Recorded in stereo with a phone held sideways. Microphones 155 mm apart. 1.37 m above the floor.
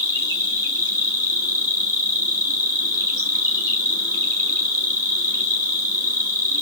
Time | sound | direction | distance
0.0 | an insect | 20° left (ahead or behind) | 1.3 m